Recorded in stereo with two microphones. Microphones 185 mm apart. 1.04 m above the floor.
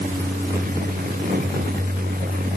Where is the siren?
No siren in this recording.